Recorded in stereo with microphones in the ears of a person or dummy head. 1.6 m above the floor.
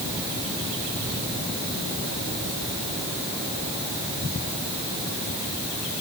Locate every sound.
Only background noise.